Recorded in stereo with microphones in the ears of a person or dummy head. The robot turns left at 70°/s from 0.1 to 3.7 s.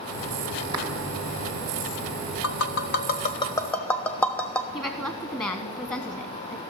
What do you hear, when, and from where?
0.7 s a clap: 25° right (ahead or behind), 2 m; by 0.9 s 35° right (ahead or behind), 2 m
2.4 s tapping: 70° left (ahead or behind), 0.9 m; by 4.6 s 15° left (ahead or behind), 0.9 m
4.7 s a woman speaking: 15° left (ahead or behind), 0.9 m